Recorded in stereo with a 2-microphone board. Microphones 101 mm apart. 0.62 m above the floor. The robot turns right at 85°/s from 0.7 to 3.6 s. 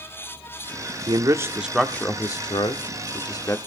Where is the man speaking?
45° right (ahead or behind), 1.4 m; by 3.6 s 20° left (ahead or behind), 1.4 m.